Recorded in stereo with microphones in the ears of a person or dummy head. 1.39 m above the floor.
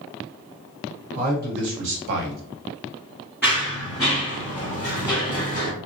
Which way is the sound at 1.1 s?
55° right (ahead or behind).